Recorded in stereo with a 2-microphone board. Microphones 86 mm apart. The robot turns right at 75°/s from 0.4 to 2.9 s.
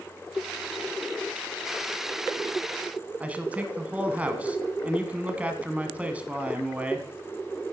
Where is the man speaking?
15° right (ahead or behind), 1.3 m.